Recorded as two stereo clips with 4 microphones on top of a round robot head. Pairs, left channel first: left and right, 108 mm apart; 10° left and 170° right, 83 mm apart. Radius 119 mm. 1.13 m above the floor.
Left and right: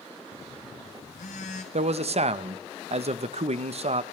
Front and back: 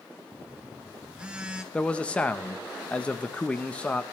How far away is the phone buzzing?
About 1.0 m.